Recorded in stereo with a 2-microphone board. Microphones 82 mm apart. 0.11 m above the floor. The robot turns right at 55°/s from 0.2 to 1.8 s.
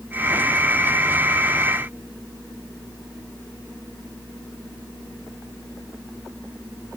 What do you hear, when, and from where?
Only background noise.